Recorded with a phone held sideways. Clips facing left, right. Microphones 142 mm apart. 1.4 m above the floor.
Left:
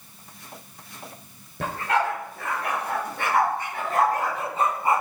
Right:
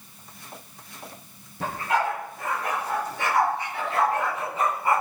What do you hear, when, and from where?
1.6 s a dog barking: 75° left (ahead or behind), 6.5 m; by 5.0 s 15° left (ahead or behind), 3 m